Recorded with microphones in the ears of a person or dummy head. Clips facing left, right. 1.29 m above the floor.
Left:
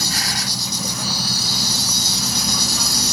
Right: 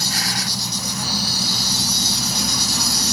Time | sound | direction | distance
0.0 | an insect | 70° left (ahead or behind) | ?